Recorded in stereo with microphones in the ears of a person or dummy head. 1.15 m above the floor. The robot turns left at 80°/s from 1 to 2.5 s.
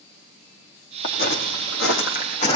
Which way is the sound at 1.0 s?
40° left (ahead or behind).